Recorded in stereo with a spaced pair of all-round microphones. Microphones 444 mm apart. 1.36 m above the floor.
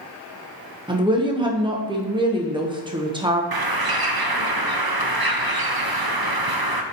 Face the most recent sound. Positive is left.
turn(degrees=-55)  # may be behind; listen again after turning